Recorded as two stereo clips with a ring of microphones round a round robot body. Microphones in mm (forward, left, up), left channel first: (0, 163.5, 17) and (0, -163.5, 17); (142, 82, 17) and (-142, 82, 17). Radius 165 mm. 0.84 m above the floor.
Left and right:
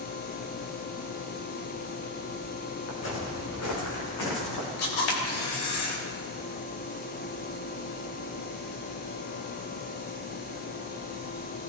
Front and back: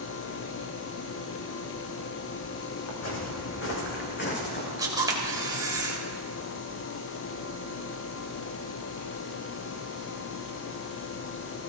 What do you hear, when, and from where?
2.9 s footsteps: 35° left, 4 m; by 4.7 s 55° left, 4.5 m
4.8 s a camera shutter: 105° left, 3.5 m